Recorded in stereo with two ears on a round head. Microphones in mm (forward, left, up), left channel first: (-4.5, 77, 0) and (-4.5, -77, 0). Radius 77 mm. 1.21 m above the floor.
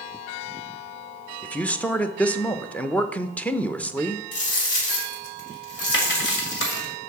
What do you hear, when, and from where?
1.4 s a man speaking: 10° left (ahead or behind), 0.7 m
4.3 s a dropped coin: 70° left (ahead or behind), 2.5 m